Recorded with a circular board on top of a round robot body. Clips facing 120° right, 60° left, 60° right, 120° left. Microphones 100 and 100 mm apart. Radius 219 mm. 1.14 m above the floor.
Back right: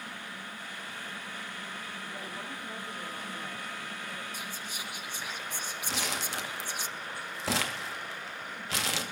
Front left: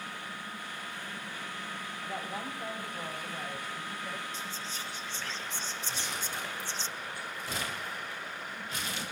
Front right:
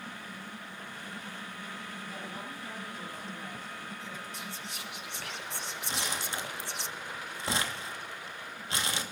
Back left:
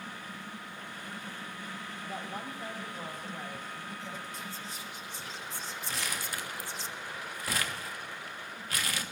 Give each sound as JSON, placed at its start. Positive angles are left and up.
{"t": 2.0, "sound": "a woman speaking", "azimuth_deg": 75, "distance_m": 5.0}
{"t": 4.3, "sound": "whispering", "azimuth_deg": -40, "distance_m": 1.0}
{"t": 5.9, "sound": "crumpling", "azimuth_deg": -125, "distance_m": 1.9}